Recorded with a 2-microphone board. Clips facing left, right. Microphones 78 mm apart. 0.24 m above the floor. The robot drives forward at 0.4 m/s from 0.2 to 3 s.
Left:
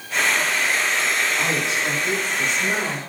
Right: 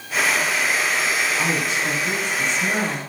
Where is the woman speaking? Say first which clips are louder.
Even; 20° left (ahead or behind), 1.6 m.